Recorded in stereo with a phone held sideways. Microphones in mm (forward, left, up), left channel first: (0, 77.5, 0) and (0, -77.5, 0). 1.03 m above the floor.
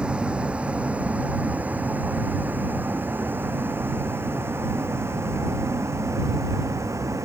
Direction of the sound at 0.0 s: 5° right (ahead or behind).